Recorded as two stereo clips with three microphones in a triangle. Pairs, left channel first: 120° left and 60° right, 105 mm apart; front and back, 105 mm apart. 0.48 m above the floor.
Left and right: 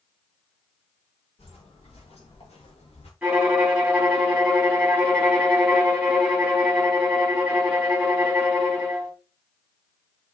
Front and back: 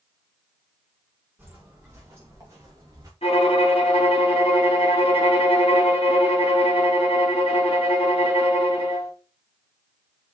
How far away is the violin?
About 2.5 m.